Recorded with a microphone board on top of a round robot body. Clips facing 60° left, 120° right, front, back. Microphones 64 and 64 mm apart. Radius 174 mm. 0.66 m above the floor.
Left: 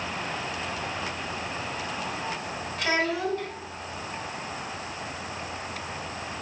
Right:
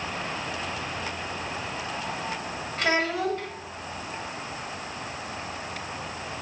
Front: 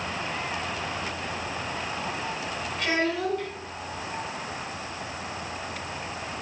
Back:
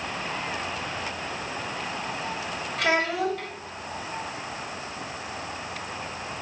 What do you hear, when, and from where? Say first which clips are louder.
2.8 s a child speaking: right 1 dB, back 2 dB; 165° right, 1.4 m